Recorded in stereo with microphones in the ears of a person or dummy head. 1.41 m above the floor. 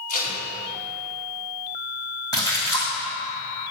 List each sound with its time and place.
0.1 s tape being pulled: 45° left (ahead or behind), 3 m
2.3 s a splash: 25° left (ahead or behind), 2.5 m